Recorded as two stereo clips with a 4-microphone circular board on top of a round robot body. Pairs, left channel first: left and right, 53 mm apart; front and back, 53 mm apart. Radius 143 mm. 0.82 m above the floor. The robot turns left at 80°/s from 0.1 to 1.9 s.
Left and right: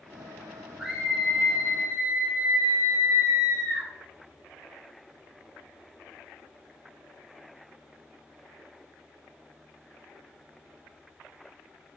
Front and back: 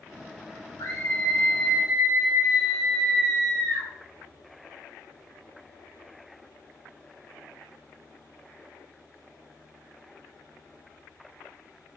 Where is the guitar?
No guitar in this recording.